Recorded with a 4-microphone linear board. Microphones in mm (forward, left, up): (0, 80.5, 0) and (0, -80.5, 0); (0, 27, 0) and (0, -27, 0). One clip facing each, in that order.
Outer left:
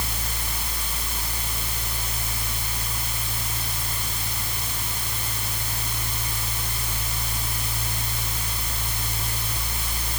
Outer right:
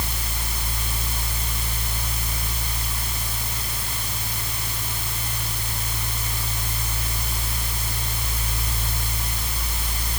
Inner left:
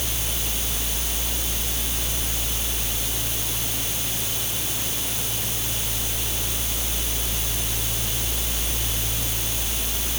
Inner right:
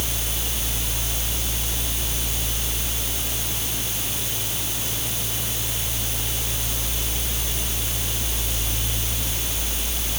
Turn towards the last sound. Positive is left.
No sound to turn to.